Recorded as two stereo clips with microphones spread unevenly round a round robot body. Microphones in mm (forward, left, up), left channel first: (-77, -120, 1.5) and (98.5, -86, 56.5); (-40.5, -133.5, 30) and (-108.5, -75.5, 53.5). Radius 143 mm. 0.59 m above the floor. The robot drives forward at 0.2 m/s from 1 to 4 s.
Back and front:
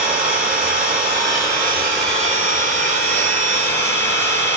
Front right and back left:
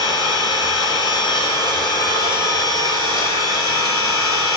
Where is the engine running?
75° right, 2.5 m; by 4.6 s 90° right, 2.5 m.